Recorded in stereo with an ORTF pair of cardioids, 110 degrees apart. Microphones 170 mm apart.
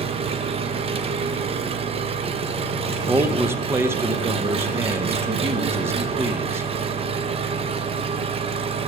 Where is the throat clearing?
No throat clearing in this recording.